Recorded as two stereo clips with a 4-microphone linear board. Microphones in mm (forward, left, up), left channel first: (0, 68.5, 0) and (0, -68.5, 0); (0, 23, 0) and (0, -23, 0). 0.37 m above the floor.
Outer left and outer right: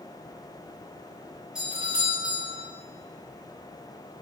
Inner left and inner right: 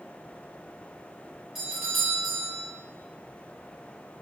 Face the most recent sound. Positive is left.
turn(degrees=-5)  # may be behind; listen again after turning